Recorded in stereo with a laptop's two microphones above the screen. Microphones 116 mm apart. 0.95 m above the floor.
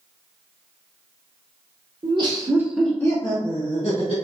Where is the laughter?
45° right (ahead or behind), 0.9 m; by 4.1 s 55° left (ahead or behind), 1.3 m.